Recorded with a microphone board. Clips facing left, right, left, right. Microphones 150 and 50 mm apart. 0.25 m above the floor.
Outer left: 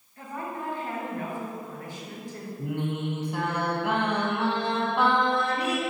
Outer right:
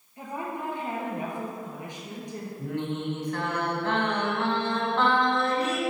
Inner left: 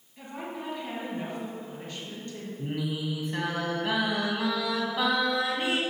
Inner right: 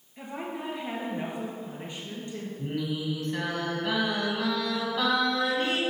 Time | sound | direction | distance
0.2 | a woman speaking | 20° right (ahead or behind) | 4 m
2.6 | singing | 15° left (ahead or behind) | 2 m